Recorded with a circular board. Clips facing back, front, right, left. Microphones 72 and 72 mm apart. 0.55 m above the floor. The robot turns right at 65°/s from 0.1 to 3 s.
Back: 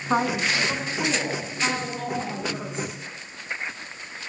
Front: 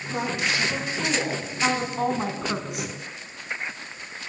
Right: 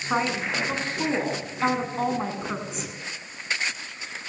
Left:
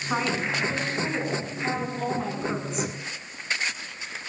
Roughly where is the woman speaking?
Behind.